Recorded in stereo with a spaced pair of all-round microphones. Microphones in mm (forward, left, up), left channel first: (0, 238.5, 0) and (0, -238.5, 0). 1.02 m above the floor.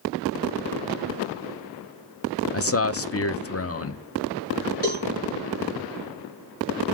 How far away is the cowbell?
About 5.5 m.